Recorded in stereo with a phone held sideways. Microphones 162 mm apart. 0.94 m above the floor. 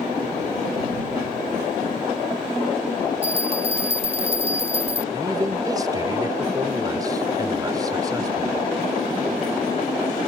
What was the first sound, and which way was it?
A bell, 40° right (ahead or behind).